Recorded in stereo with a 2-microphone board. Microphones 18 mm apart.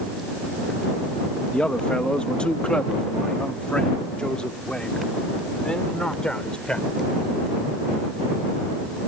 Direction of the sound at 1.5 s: 90° left.